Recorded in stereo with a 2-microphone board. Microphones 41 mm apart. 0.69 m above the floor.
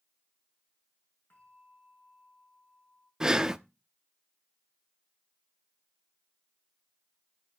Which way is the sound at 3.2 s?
15° right (ahead or behind).